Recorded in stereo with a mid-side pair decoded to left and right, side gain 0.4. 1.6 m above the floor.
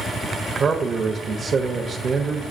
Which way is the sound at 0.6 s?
45° right.